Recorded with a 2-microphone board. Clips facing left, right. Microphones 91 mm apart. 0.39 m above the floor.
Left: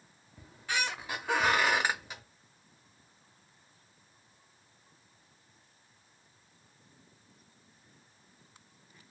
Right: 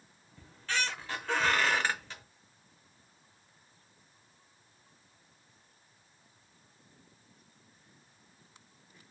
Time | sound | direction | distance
0.4 | a squeak | 15° left (ahead or behind) | 0.6 m